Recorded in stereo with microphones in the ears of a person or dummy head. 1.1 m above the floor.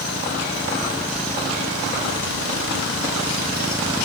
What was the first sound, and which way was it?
Only background noise.